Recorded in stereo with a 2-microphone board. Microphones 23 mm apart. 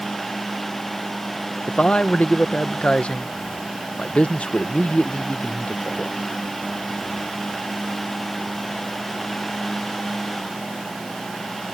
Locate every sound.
1.7 s a man speaking: 65° left (ahead or behind)